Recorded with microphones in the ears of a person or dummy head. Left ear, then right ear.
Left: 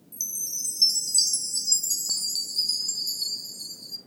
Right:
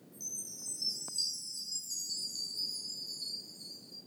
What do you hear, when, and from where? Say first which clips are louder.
0.1 s a chime: left 11 dB; 45° left (ahead or behind), 1.3 m